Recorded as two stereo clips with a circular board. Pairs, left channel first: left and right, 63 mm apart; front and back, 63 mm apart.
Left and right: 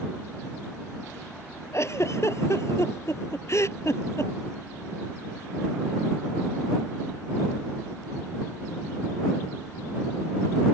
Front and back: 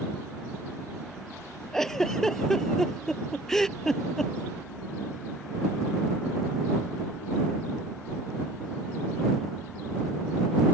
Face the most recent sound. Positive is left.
turn(degrees=80)